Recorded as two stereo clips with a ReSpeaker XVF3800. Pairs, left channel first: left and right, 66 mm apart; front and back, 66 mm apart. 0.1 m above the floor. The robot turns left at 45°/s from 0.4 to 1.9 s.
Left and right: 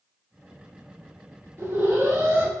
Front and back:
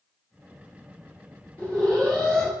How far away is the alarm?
About 1.4 m.